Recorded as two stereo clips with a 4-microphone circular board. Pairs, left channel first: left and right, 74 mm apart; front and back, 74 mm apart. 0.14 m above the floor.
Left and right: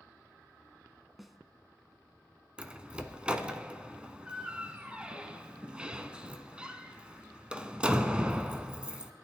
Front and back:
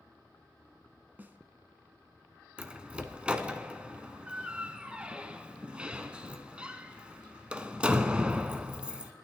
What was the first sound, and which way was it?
A snare drum, 175° right.